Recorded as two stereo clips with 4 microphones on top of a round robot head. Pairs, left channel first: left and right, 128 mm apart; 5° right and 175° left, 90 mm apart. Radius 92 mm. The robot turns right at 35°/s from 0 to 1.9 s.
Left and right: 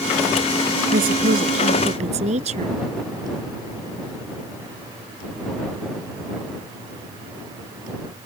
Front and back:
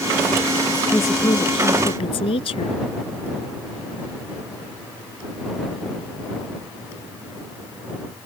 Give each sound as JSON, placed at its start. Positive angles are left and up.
{"t": 0.9, "sound": "a woman speaking", "azimuth_deg": -80}